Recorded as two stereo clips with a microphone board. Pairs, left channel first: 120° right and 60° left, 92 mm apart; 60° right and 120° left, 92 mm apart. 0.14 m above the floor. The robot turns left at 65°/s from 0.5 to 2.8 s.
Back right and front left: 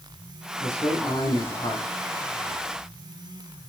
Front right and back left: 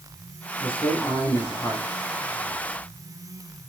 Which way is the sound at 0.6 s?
70° right.